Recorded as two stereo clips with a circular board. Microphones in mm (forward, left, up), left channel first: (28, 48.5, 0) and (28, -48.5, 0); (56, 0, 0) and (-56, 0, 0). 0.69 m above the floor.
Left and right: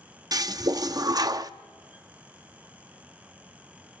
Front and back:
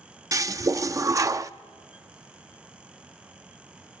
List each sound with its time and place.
0.3 s a toilet flushing: 125° right, 0.5 m